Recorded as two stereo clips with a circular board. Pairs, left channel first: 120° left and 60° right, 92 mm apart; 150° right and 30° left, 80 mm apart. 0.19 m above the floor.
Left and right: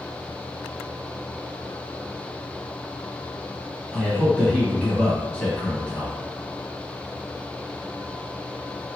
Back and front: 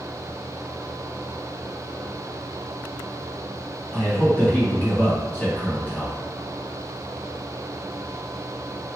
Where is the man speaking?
175° left, 1.2 m.